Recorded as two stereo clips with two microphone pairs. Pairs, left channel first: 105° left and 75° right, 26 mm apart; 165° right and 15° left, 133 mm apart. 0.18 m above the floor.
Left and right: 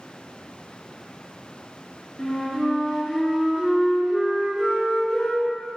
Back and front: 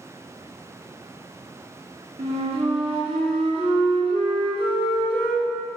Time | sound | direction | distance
2.2 | a flute | 50° left | 0.6 m